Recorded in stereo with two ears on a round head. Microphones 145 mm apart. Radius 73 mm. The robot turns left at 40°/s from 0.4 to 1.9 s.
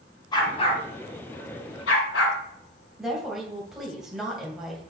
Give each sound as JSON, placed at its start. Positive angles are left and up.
{"t": 0.3, "sound": "a dog barking", "side_deg": 25, "distance_m": 2.0}
{"t": 3.0, "sound": "a woman speaking", "side_deg": -5, "distance_m": 2.5}